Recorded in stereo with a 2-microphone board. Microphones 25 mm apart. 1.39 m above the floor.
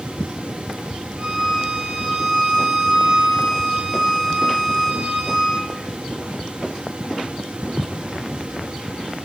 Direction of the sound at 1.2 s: 30° right (ahead or behind).